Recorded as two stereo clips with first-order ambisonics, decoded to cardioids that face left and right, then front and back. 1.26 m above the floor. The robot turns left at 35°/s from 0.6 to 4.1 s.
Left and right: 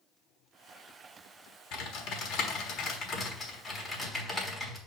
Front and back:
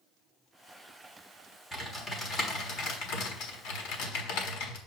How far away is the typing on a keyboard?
About 1.3 m.